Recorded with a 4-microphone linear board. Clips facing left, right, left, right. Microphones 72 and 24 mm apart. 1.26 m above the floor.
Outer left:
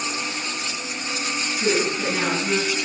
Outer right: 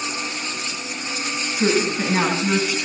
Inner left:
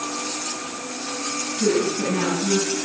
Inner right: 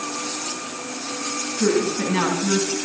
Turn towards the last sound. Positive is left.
turn(degrees=-45)  # may be behind; listen again after turning